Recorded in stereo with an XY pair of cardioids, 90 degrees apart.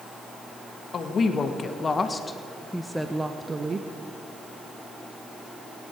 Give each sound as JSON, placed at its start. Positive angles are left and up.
{"t": 0.9, "sound": "a woman speaking", "azimuth_deg": 55, "distance_m": 1.7}